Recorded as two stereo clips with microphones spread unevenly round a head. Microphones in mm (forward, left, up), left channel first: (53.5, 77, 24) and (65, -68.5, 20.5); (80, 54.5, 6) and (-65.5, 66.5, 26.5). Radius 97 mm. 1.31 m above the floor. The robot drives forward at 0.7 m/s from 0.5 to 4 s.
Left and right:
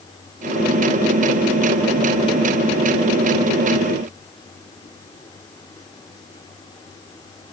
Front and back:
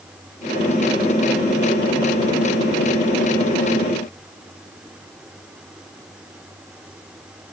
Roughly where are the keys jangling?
I don't hear keys jangling.